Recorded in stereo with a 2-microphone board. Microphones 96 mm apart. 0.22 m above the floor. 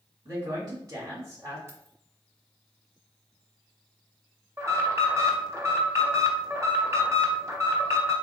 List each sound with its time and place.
0.2 s a woman speaking: 35° right (ahead or behind), 1.7 m
1.7 s keys jangling: 30° right (ahead or behind), 1.0 m
4.6 s an alarm: 30° right (ahead or behind), 0.8 m